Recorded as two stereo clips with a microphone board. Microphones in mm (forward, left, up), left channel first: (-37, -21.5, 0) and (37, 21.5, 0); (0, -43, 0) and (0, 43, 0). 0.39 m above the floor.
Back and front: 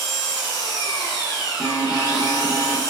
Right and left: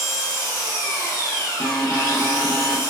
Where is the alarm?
30° right, 0.7 m.